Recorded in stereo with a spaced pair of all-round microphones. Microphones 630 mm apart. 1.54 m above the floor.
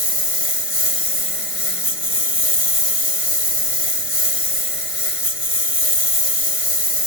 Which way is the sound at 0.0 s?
55° left (ahead or behind).